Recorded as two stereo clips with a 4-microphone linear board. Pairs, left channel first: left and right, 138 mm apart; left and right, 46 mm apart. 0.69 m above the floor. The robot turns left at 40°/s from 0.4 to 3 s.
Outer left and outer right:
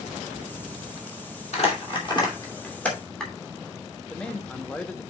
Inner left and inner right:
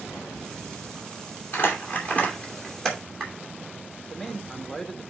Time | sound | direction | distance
1.5 | crumpling | 55° left (ahead or behind) | 2.5 m
4.0 | a man speaking | 10° left (ahead or behind) | 0.9 m